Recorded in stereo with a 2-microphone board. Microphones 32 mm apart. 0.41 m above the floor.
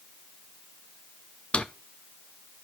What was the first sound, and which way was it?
A drawer, 35° left (ahead or behind).